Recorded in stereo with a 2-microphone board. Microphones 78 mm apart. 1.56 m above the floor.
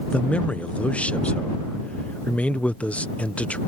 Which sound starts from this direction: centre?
A man speaking, at 0.1 s.